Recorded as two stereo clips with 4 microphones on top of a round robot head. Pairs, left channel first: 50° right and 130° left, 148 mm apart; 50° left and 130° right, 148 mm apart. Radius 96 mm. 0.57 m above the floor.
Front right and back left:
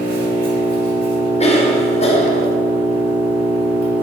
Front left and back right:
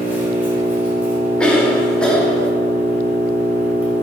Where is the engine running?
150° left, 3 m.